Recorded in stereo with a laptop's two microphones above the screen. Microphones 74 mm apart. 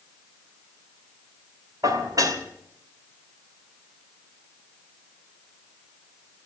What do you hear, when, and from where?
1.8 s dishes clattering: 55° right (ahead or behind), 2.5 m